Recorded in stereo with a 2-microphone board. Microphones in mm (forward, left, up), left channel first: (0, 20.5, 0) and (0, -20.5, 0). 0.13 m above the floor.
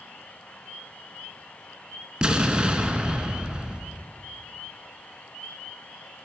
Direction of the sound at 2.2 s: 25° right (ahead or behind).